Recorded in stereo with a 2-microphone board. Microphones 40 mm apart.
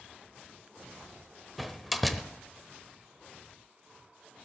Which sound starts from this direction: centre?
A door slam, at 1.6 s.